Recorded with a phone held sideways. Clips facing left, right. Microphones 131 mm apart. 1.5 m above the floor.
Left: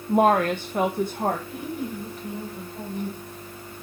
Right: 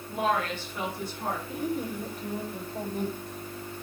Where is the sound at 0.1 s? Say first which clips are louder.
Left 9 dB; 50° left (ahead or behind), 1.0 m.